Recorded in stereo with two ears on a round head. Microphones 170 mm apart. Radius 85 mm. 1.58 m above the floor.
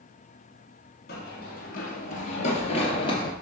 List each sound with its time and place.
1.1 s running footsteps: 55° left (ahead or behind), 2.5 m; by 3.3 s 25° left (ahead or behind), 2.0 m